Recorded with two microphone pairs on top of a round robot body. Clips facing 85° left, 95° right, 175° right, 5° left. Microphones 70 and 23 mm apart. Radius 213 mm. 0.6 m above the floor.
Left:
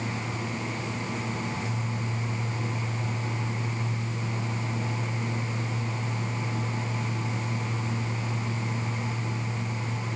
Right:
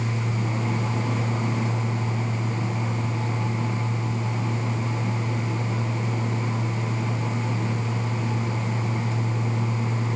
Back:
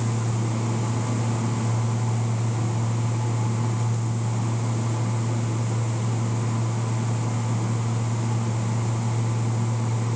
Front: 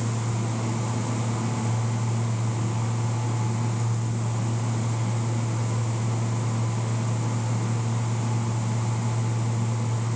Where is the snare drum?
I don't hear a snare drum.